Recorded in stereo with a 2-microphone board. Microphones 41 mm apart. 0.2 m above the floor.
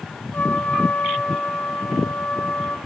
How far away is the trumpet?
About 0.6 m.